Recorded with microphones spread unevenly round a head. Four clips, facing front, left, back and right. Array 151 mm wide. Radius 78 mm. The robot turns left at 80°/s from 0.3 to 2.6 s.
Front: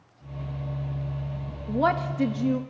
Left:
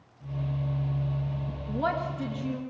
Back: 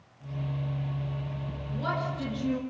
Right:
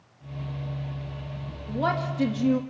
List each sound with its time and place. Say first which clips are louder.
1.7 s a woman speaking: right 2 dB, front 8 dB; 5° right, 1.4 m; by 2.6 s 75° right, 1.4 m